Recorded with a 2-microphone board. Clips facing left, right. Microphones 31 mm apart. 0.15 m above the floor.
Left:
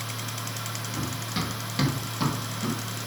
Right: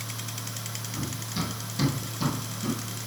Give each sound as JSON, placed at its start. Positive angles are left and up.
{"t": 0.9, "sound": "running footsteps", "side_deg": 50, "distance_m": 4.0}